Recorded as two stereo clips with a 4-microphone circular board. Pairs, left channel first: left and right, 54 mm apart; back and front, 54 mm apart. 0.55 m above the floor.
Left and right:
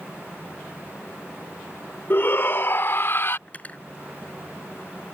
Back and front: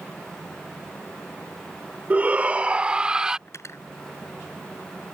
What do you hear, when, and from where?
2.1 s a shout: 55° left; by 3.4 s 70° left
3.5 s cutlery clinking: 155° left